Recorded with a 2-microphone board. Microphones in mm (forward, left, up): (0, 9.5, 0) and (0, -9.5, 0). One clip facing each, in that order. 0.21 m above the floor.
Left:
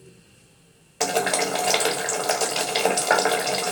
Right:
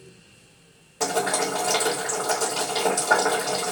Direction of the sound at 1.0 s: 70° left (ahead or behind).